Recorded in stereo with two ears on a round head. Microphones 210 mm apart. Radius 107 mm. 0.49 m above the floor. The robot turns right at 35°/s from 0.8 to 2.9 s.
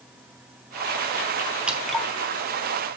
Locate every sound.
1.7 s dripping: 5° right (ahead or behind), 1.0 m; by 2.1 s 5° left (ahead or behind), 1.0 m